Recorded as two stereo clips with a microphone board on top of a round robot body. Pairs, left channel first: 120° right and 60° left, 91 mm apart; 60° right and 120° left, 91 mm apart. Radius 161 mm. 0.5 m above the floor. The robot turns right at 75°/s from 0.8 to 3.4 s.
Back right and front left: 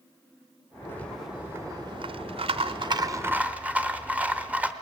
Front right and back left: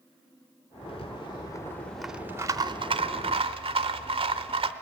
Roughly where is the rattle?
Ahead right.